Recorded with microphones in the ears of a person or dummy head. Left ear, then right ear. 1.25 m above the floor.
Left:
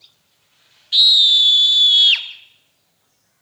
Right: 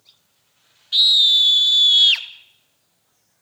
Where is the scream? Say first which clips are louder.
Left 2 dB; 5° left (ahead or behind), 3 m; by 2.3 s 5° right (ahead or behind), 2 m.